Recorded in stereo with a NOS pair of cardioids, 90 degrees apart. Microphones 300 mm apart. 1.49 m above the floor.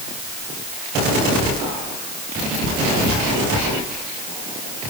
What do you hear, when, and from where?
Only background noise.